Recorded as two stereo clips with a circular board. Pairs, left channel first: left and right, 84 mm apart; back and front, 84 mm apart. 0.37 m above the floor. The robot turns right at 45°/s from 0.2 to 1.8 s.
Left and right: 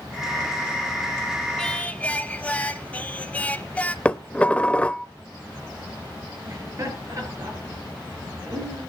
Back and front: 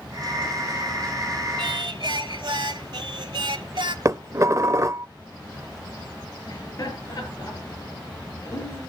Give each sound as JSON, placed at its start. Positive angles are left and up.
{"t": 1.6, "sound": "singing", "azimuth_deg": 10, "distance_m": 0.7}
{"t": 4.0, "sound": "dishes clattering", "azimuth_deg": 25, "distance_m": 0.6}
{"t": 6.5, "sound": "laughter", "azimuth_deg": -140, "distance_m": 7.5}